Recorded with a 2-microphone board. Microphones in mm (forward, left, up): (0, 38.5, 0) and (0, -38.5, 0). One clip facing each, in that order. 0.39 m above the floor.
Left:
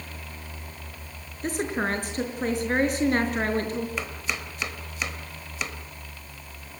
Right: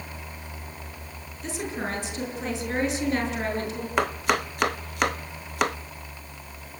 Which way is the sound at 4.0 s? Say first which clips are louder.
Right 9 dB; 60° right (ahead or behind).